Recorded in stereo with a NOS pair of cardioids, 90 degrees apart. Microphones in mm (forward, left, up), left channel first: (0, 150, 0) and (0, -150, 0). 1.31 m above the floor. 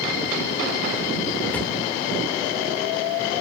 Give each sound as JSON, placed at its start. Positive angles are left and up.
{"t": 1.5, "sound": "a drawer", "azimuth_deg": 5, "distance_m": 2.0}